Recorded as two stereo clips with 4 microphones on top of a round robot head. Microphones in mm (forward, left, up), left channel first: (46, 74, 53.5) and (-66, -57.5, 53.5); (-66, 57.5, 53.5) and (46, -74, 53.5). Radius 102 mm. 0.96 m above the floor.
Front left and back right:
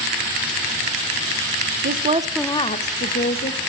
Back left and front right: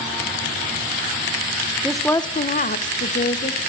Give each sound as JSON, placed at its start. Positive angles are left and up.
{"t": 1.8, "sound": "a woman speaking", "azimuth_deg": -130, "distance_m": 0.7}